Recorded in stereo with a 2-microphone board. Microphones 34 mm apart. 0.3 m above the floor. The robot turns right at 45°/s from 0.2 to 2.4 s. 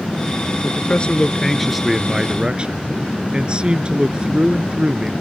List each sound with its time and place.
0.6 s a man speaking: 130° left; by 5.1 s 150° right